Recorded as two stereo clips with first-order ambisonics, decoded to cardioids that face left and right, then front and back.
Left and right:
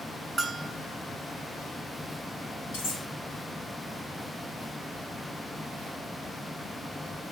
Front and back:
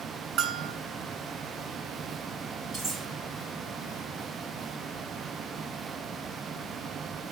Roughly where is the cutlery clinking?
Left.